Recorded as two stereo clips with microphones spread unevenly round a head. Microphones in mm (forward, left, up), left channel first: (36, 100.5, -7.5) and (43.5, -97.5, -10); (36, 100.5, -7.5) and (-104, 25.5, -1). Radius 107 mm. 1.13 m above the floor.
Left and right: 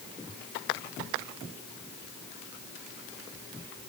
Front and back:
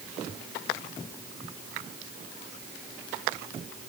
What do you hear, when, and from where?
Only background noise.